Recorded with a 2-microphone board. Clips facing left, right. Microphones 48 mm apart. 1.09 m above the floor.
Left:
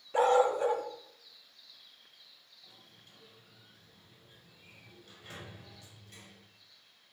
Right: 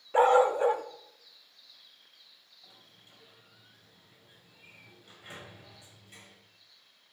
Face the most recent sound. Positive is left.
turn(degrees=-20)  # may be behind; listen again after turning